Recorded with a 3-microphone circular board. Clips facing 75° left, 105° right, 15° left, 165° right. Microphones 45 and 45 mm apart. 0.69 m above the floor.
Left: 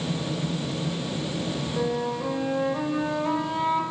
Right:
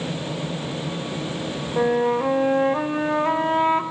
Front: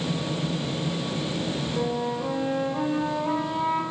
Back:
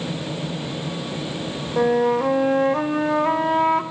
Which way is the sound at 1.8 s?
150° right.